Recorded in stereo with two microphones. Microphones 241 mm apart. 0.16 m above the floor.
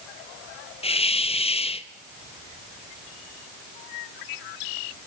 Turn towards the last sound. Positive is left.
turn(degrees=25)  # may be behind; listen again after turning